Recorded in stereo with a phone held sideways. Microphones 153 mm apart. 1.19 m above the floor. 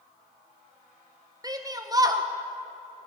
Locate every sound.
1.4 s a shout: 25° right (ahead or behind), 1.1 m